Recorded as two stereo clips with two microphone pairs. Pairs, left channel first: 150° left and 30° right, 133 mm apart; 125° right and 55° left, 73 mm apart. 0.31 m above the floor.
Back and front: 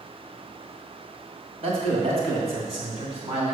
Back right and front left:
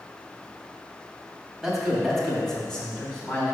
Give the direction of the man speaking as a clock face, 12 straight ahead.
1 o'clock.